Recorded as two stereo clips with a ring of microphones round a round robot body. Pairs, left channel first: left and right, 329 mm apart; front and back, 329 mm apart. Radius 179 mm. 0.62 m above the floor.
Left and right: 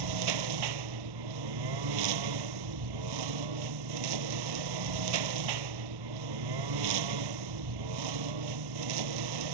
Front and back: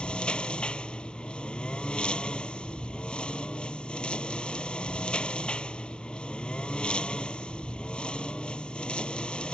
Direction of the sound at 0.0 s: 85° right.